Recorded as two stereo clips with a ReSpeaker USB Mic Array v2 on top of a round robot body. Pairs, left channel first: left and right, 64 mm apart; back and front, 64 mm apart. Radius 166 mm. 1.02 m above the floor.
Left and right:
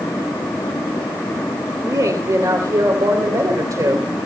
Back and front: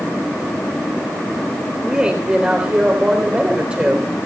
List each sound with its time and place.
1.9 s a woman speaking: 75° right, 3 m